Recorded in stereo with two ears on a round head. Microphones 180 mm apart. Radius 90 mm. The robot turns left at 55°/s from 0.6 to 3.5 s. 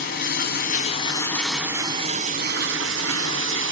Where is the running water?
50° left, 3 m; by 3.7 s 110° right, 3 m.